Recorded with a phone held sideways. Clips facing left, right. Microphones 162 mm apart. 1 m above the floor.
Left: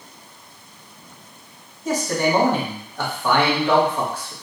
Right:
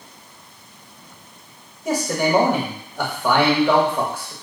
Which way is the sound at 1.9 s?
15° right (ahead or behind).